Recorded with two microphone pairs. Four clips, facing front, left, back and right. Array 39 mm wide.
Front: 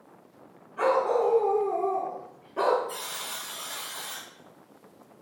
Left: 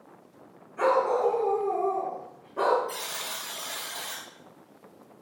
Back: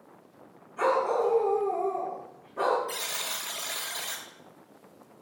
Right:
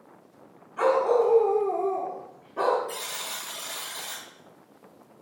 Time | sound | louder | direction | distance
0.8 | a dog barking | right 2 dB, front 2 dB | 75° right | 1.4 m
2.9 | a buzzer | even, back 2 dB | straight behind | 0.5 m